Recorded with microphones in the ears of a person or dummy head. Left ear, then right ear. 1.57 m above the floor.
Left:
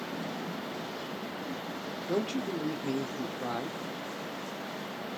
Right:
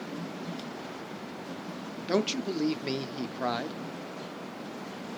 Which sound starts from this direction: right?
A man speaking, at 2.1 s.